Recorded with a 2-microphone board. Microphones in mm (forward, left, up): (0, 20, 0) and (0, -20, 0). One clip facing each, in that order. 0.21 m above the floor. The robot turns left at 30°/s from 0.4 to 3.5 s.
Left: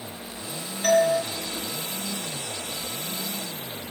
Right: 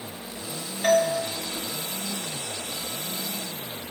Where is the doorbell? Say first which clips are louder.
Left 1 dB; 15° right (ahead or behind), 2 m; by 1.2 s 20° right (ahead or behind), 2 m.